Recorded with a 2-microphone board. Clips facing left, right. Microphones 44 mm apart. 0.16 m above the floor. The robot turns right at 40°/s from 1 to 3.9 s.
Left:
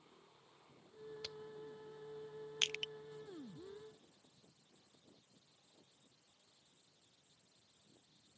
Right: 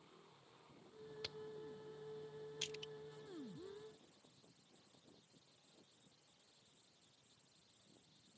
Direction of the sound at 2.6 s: 75° left (ahead or behind).